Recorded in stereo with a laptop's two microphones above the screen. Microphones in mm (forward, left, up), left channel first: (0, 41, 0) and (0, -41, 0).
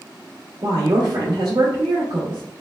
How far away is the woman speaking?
About 1.6 m.